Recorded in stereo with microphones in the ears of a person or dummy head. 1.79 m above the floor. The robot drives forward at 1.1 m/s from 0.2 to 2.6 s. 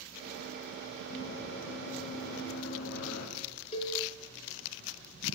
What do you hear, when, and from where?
1.1 s running footsteps: 70° left (ahead or behind), 7.5 m
3.7 s a cowbell: 35° left (ahead or behind), 4.5 m